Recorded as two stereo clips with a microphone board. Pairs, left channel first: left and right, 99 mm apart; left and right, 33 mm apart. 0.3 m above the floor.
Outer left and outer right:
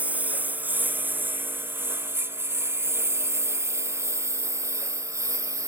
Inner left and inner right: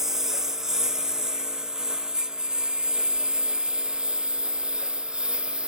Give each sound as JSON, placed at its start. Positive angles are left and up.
{"t": 0.0, "sound": "a lawn mower", "side_deg": -15}